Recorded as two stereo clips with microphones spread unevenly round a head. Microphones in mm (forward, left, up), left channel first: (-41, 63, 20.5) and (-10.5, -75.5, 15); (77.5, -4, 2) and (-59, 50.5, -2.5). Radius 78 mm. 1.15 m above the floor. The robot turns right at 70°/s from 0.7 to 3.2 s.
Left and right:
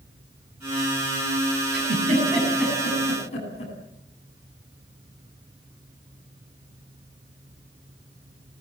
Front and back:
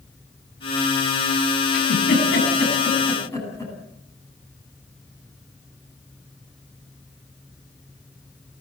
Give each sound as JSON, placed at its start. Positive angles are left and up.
{"t": 1.7, "sound": "a giggle", "azimuth_deg": -55, "distance_m": 9.0}